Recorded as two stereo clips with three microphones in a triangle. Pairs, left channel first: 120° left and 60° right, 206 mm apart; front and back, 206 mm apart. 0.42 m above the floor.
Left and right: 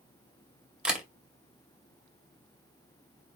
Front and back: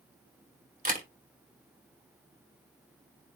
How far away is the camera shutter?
About 2 m.